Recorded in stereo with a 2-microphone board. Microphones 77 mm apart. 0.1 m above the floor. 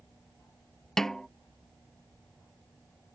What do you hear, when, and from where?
1.0 s a snare drum: 5° left (ahead or behind)